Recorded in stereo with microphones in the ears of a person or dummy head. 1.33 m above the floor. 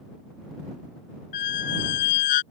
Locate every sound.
1.3 s a squeak: 50° left (ahead or behind)